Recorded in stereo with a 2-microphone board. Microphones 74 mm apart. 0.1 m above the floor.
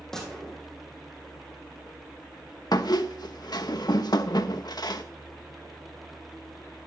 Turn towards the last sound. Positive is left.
turn(degrees=65)  # may be behind; listen again after turning